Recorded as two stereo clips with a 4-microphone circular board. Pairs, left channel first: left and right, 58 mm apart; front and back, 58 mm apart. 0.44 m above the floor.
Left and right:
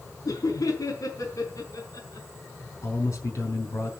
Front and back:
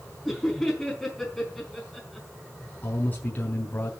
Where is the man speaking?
60° left, 5 m.